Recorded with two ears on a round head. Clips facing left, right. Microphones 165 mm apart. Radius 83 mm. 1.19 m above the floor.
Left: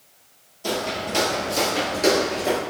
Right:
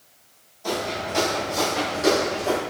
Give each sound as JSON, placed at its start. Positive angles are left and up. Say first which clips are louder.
{"t": 0.6, "sound": "footsteps", "louder": "left 1 dB", "side_deg": 45, "distance_m": 1.7}